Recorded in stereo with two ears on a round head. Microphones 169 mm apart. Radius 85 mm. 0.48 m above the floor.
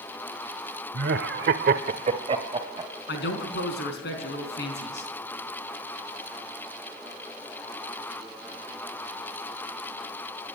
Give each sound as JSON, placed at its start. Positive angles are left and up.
{"t": 0.9, "sound": "laughter", "side_deg": -50, "distance_m": 1.4}
{"t": 3.1, "sound": "a man speaking", "side_deg": 60, "distance_m": 4.0}